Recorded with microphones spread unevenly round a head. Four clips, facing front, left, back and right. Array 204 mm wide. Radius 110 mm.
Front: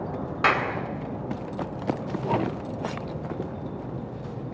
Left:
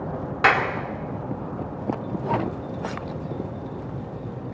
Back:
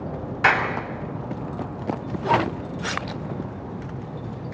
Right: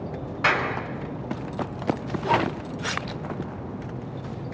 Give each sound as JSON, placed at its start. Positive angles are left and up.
{"t": 0.4, "sound": "a clap", "azimuth_deg": 75, "distance_m": 3.5}